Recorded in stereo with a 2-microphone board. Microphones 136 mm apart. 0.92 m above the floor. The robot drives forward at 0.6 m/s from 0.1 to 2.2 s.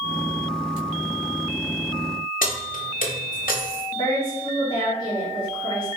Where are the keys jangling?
90° left, 0.6 m.